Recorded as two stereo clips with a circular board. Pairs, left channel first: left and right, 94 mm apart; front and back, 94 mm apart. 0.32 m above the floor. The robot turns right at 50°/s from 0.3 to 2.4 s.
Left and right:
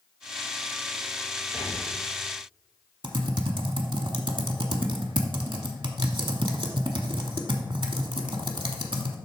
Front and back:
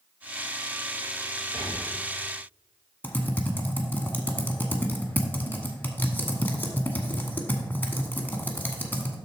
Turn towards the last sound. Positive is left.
turn(degrees=-70)